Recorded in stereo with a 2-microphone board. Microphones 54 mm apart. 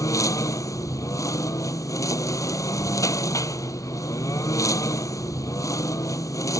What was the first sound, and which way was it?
A lawn mower, 85° left.